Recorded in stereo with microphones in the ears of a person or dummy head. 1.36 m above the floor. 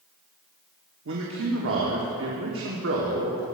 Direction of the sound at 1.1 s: 65° right (ahead or behind).